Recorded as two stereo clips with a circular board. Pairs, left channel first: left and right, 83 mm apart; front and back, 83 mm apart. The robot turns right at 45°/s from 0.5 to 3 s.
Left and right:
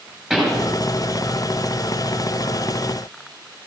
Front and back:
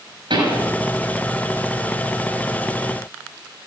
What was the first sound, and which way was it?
A pop, 170° right.